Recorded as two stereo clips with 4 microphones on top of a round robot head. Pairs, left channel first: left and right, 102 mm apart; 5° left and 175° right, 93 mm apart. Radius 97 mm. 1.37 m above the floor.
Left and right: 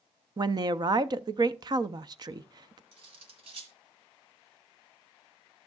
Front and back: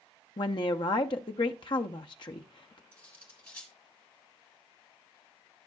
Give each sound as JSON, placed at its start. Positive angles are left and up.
{"t": 0.4, "sound": "a woman speaking", "azimuth_deg": -40, "distance_m": 0.6}
{"t": 2.9, "sound": "cutlery clinking", "azimuth_deg": -65, "distance_m": 1.9}